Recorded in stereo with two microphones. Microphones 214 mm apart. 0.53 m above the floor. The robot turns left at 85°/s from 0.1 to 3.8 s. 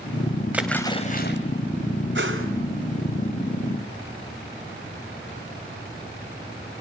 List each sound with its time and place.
0.5 s a splash: 170° right, 2.5 m; by 1.4 s 115° left, 2.5 m
2.1 s a whoosh: 60° right (ahead or behind), 3 m; by 2.5 s 75° right (ahead or behind), 3 m